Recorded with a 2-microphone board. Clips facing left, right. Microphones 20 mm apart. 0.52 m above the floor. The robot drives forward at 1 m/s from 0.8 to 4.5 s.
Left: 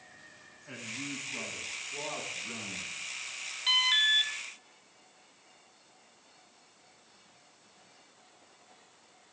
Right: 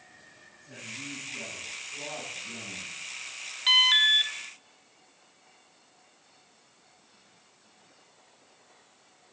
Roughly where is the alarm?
Centre.